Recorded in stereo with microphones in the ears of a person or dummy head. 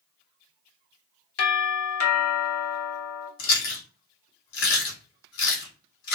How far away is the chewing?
About 1.2 m.